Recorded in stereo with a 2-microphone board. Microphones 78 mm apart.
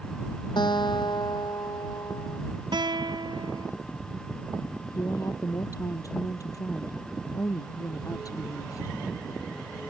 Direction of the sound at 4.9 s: 45° left (ahead or behind).